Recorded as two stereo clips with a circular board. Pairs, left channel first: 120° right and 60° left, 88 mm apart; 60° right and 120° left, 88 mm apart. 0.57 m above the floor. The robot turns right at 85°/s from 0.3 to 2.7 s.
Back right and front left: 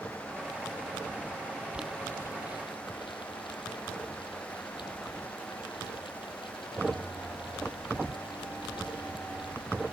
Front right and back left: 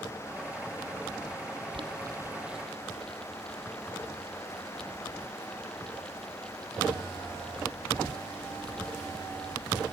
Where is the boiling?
135° left; by 9.9 s 140° right.